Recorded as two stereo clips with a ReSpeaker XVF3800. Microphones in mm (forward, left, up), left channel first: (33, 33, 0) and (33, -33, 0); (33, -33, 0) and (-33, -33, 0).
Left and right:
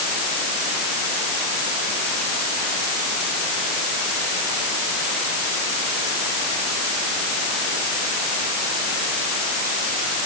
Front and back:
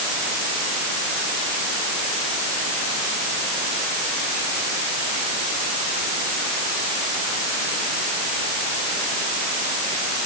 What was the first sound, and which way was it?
Only background noise.